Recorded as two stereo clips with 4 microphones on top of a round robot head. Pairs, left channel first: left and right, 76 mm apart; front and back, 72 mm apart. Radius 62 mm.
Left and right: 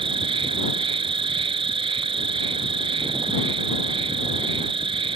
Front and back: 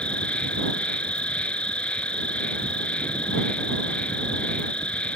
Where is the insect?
80° right.